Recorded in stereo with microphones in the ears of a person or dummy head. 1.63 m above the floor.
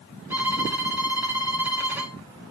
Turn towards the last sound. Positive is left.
turn(degrees=-10)  # may be behind; listen again after turning